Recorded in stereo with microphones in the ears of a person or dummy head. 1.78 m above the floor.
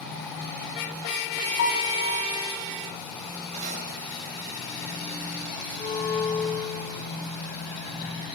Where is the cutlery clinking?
35° right (ahead or behind), 6.5 m.